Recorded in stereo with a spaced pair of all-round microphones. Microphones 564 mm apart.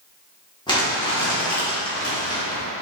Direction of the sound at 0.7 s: 10° left (ahead or behind).